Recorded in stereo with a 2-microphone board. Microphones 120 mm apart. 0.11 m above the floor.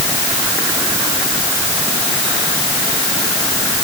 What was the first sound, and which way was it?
Only background noise.